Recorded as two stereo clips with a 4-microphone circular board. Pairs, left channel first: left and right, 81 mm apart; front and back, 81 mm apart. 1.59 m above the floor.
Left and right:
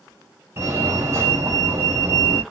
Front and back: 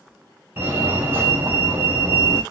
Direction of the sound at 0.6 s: 135° right.